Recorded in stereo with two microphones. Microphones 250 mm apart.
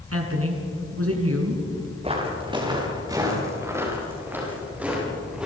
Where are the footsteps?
25° right (ahead or behind), 5.5 m; by 5.5 s 5° right (ahead or behind), 9.5 m.